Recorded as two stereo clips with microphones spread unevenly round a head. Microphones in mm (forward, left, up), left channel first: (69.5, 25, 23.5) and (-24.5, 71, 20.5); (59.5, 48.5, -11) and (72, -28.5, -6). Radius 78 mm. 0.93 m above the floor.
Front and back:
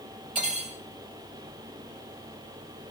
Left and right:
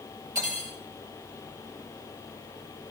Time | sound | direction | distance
0.3 | cutlery clinking | 145° right | 1.7 m